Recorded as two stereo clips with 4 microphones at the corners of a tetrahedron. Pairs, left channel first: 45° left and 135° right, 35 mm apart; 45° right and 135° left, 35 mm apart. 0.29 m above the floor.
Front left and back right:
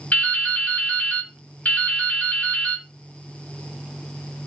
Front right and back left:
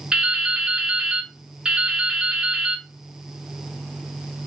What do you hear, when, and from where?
0.1 s dripping: 70° left, 1.3 m